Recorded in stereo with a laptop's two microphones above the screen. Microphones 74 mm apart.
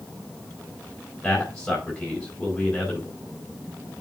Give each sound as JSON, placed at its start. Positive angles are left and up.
{"t": 1.2, "sound": "a man speaking", "side_deg": 10, "distance_m": 4.5}